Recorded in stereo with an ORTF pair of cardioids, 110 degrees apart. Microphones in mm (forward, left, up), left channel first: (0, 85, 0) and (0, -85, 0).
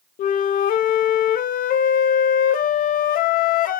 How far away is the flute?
About 0.5 m.